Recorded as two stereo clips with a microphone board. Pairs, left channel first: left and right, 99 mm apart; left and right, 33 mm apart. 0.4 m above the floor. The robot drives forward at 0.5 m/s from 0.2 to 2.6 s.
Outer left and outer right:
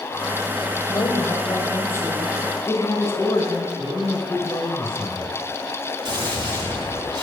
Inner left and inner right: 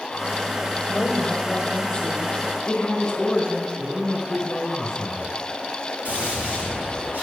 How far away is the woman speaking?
About 1.2 m.